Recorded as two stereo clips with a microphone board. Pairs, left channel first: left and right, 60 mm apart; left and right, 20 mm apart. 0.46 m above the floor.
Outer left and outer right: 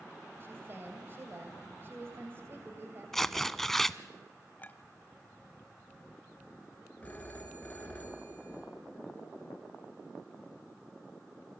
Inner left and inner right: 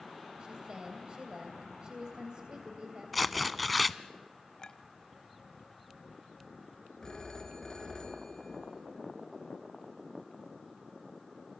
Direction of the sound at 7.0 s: 25° left (ahead or behind).